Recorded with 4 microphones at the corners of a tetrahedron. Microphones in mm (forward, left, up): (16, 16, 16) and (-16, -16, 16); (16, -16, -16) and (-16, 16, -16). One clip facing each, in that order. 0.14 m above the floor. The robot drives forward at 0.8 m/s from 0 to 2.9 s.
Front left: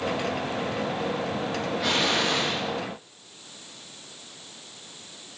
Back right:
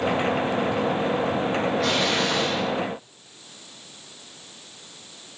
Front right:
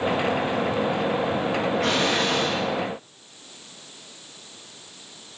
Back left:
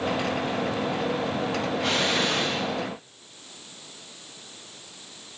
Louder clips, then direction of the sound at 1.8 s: Back right 2 dB, even; 35° right.